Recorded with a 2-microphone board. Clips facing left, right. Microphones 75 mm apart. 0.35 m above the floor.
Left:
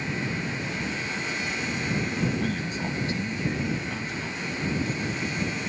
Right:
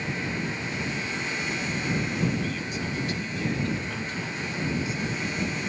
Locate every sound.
2.4 s a man speaking: 50° left (ahead or behind); by 5.0 s 10° right (ahead or behind)